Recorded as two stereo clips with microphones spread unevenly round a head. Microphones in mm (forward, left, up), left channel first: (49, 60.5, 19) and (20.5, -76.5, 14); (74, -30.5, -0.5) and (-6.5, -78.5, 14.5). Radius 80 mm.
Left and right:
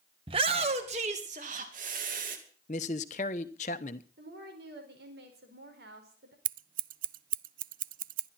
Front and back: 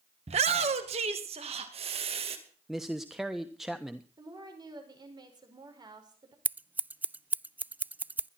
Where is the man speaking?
125° left, 1.0 m.